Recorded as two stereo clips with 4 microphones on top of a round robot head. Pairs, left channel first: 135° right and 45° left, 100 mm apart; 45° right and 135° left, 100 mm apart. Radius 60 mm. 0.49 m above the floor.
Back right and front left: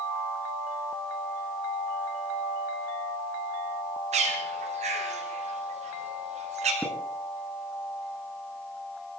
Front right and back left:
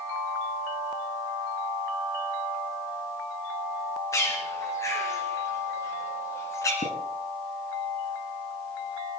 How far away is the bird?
About 5.5 m.